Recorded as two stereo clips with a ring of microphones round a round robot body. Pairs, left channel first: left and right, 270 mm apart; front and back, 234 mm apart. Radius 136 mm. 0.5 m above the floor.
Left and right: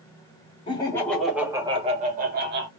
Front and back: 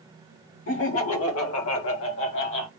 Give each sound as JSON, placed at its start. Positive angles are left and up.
{"t": 0.7, "sound": "laughter", "azimuth_deg": 20, "distance_m": 1.4}